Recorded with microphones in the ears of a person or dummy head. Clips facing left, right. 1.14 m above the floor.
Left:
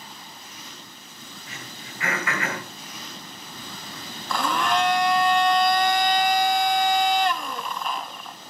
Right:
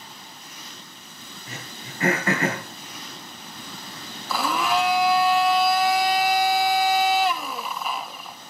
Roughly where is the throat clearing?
Right.